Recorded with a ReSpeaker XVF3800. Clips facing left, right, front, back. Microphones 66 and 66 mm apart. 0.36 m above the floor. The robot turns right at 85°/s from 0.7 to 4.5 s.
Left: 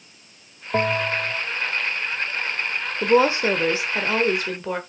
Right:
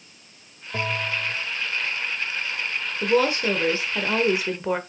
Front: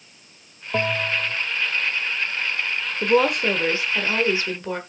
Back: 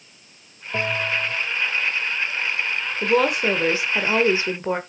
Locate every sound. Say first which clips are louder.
0.7 s a bell: left 5 dB, front 1 dB; 65° left, 0.8 m; by 1.5 s 125° left, 0.8 m
3.0 s a woman speaking: left 3 dB, front 1 dB; 75° left, 1.2 m; by 4.8 s 160° right, 1.2 m